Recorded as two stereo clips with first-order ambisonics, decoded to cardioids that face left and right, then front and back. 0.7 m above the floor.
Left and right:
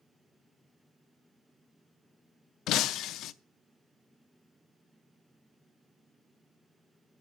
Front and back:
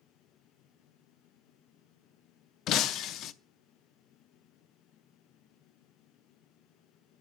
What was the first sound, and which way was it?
Breaking glass, 45° left.